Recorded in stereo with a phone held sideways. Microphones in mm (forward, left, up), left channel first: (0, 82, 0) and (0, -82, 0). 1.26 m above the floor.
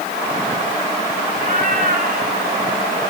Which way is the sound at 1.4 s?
55° right (ahead or behind).